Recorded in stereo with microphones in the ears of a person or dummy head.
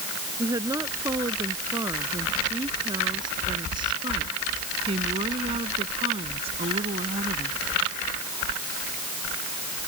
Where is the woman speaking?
30° right (ahead or behind); by 7.6 s 45° right (ahead or behind).